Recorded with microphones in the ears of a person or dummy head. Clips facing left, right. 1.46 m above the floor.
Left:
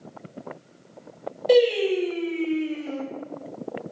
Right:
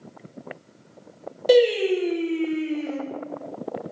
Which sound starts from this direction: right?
Singing, at 1.5 s.